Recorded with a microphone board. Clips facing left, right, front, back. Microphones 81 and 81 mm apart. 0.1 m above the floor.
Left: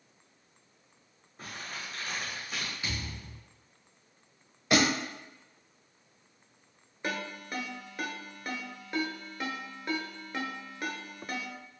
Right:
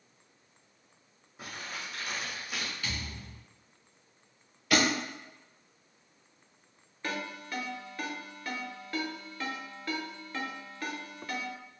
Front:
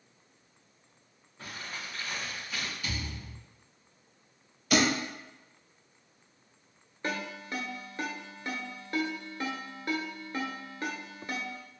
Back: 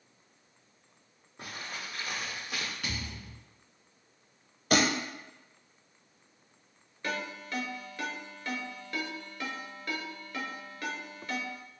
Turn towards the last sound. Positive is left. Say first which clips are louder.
# left 1 dB, front 1 dB
turn(degrees=35)